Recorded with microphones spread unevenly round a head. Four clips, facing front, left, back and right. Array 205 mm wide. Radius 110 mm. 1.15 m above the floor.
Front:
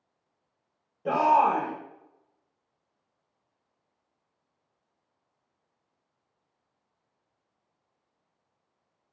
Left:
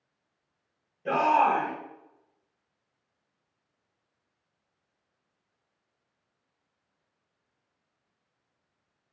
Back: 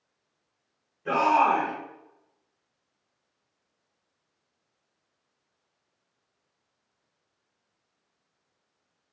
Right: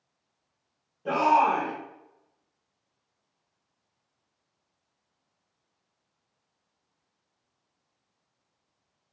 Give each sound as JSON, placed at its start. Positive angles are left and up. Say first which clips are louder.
{"t": 1.1, "sound": "a shout", "louder": "right 1 dB, even", "azimuth_deg": -5, "distance_m": 1.3}